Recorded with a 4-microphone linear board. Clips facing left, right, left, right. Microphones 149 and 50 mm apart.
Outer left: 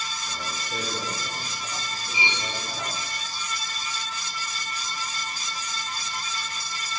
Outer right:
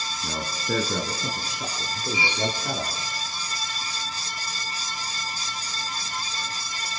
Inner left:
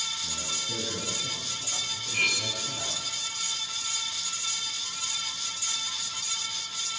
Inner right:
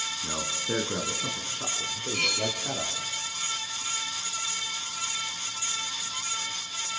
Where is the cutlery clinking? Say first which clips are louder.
Outer right 4 dB, inner left 2 dB; 20° left (ahead or behind), 5 m.